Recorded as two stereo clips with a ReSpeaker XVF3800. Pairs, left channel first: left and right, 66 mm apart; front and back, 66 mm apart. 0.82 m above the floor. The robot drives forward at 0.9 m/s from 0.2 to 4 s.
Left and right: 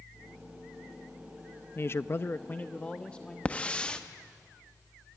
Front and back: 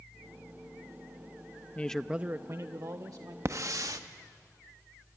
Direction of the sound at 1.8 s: 55° left.